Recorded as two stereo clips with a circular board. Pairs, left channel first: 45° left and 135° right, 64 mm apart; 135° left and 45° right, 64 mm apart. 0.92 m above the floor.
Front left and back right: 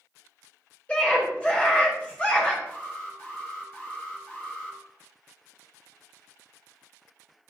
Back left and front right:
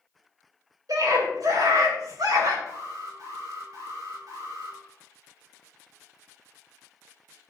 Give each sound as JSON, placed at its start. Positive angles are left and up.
{"t": 0.9, "sound": "a scream", "azimuth_deg": -25, "distance_m": 4.5}
{"t": 2.7, "sound": "an alarm", "azimuth_deg": -15, "distance_m": 4.5}